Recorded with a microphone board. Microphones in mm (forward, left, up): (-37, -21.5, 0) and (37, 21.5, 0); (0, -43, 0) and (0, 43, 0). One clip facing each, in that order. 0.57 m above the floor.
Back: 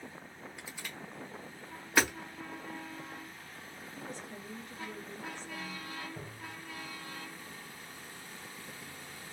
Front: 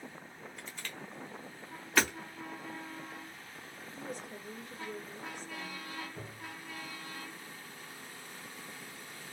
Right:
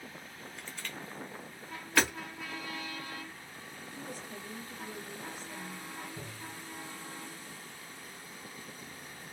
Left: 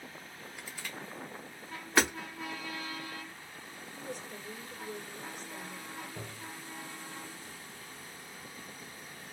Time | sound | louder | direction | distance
0.6 | crushing | even, even | 150° left | 0.7 m
2.0 | hammering | back 1 dB, left 1 dB | 145° left | 0.8 m
4.0 | a woman speaking | front 2 dB, left 1 dB | 105° right | 1.5 m
6.2 | tapping | even, even | 145° left | 1.1 m